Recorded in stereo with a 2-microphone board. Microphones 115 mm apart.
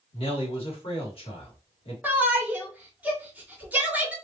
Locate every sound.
0.1 s a man speaking: 55° left (ahead or behind), 1.8 m
2.0 s a shout: 15° right (ahead or behind), 1.2 m